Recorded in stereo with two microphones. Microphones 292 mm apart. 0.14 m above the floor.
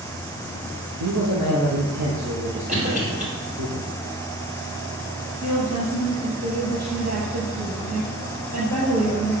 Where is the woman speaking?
60° right (ahead or behind), 3.5 m.